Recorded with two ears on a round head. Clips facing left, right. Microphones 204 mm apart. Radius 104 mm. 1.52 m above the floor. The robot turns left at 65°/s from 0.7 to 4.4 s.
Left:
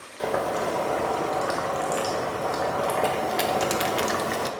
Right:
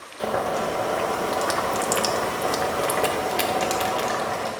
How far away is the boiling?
About 0.9 m.